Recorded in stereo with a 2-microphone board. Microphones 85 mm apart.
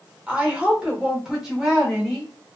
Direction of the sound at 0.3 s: 15° right (ahead or behind).